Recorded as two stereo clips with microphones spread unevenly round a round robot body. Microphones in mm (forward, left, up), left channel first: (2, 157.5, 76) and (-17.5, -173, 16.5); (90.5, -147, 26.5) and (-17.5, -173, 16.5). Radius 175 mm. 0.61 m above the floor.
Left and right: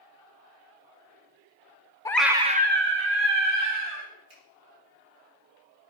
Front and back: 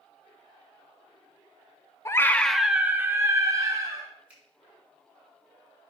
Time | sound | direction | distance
2.0 | a scream | 5° right | 0.6 m
4.3 | a finger snap | 85° right | 4 m